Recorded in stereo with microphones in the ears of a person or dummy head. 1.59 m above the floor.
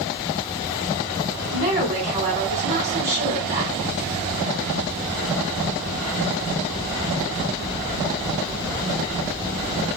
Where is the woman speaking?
35° right (ahead or behind), 2 m.